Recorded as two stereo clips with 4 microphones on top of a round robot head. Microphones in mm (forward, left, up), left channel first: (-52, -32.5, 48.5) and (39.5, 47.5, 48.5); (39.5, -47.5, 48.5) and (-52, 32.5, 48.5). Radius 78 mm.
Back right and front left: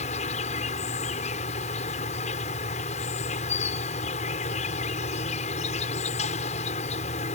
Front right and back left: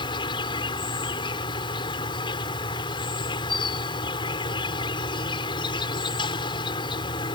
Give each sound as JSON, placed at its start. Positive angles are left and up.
{"t": 0.0, "sound": "an insect", "azimuth_deg": -95}